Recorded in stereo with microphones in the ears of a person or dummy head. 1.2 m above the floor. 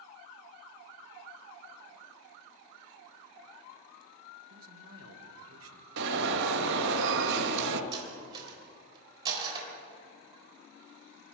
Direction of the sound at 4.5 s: 70° right (ahead or behind).